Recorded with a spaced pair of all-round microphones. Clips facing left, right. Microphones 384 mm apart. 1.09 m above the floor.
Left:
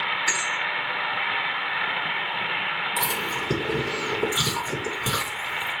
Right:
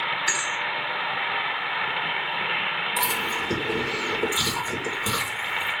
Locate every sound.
0.3 s a thud: 10° left (ahead or behind), 4 m
3.0 s chewing: 25° left (ahead or behind), 4.5 m